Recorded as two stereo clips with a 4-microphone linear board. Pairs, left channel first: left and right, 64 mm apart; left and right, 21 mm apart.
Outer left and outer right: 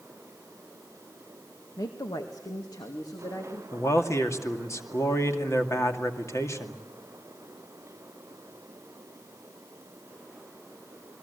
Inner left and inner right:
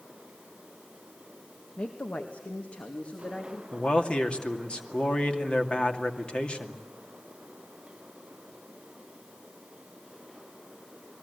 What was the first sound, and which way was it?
A woman speaking, 70° left (ahead or behind).